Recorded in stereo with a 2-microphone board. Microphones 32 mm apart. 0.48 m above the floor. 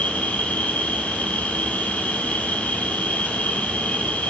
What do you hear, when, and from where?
0.0 s an insect: 55° left (ahead or behind), 3 m